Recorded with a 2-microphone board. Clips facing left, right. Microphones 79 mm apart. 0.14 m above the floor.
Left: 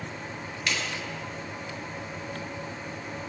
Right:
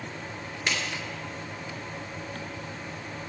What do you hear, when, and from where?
0.7 s a clap: 25° right (ahead or behind), 2.5 m